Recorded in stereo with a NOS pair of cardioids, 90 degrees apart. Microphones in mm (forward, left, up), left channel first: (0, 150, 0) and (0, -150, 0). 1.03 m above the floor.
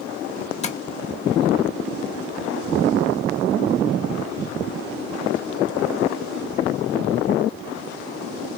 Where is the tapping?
20° left, 0.9 m.